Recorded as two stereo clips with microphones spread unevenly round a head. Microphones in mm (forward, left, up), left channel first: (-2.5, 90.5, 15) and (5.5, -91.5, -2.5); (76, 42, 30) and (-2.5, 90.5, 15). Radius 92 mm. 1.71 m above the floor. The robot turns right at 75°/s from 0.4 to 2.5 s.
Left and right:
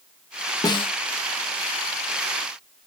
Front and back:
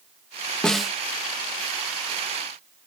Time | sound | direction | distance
0.6 | a snare drum | 35° left | ?